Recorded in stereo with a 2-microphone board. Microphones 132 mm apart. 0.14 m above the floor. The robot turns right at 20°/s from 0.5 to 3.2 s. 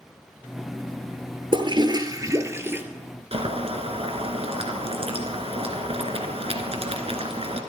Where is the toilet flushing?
40° right (ahead or behind), 1.0 m; by 2.8 s 15° right (ahead or behind), 1.0 m.